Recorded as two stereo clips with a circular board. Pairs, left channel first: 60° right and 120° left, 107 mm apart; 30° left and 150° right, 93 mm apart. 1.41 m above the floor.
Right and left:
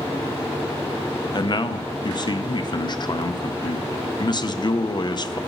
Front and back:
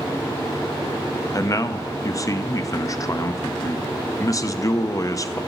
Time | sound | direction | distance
1.3 | a man speaking | 20° right | 0.5 m